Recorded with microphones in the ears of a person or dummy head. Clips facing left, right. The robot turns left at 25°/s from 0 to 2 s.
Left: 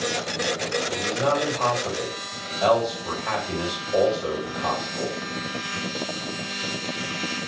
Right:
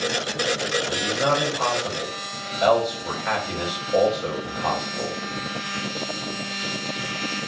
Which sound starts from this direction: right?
A man speaking, at 0.9 s.